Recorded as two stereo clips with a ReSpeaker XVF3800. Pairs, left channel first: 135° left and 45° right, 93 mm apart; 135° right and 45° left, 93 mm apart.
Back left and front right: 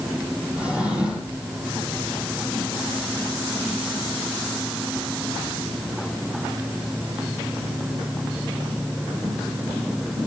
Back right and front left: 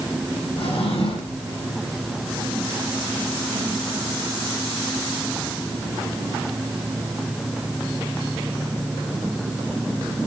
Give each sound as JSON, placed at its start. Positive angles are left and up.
{"t": 0.6, "sound": "a drawer", "azimuth_deg": -125, "distance_m": 7.0}